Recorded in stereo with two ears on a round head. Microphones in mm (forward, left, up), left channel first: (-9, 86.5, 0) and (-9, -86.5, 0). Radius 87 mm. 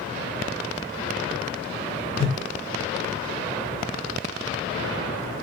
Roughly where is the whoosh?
Right.